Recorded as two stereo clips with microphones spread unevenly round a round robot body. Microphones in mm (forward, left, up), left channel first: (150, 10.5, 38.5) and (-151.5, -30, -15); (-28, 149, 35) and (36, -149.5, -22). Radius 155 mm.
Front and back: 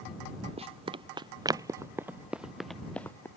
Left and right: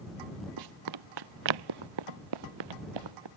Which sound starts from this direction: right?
Running footsteps, at 0.6 s.